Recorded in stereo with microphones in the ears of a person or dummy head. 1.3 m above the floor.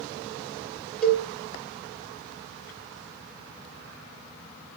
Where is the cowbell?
5° left (ahead or behind), 1.2 m.